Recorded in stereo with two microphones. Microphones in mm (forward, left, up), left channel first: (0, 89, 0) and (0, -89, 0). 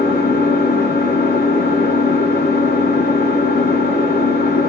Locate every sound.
0.0 s an engine running: 70° left (ahead or behind), 1.1 m